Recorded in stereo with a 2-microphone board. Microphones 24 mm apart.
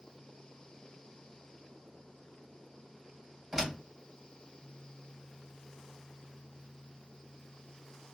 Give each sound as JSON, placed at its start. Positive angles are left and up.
{"t": 3.5, "sound": "a door slam", "side_deg": -20, "distance_m": 2.5}